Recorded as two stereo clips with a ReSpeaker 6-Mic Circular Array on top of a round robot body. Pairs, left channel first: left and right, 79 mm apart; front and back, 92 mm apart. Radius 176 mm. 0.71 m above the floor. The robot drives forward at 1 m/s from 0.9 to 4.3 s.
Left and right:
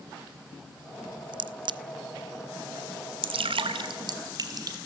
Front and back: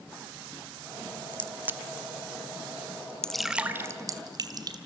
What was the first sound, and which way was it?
A crack, 70° right.